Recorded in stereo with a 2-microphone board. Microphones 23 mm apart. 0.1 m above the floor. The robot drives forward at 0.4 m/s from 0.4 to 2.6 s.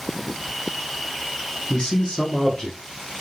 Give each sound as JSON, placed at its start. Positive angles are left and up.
{"t": 1.7, "sound": "a man speaking", "side_deg": 35, "distance_m": 1.3}